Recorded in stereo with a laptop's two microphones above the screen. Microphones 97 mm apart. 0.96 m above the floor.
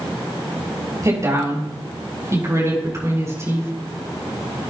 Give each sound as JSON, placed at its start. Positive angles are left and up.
{"t": 1.0, "sound": "a woman speaking", "side_deg": -35, "distance_m": 6.0}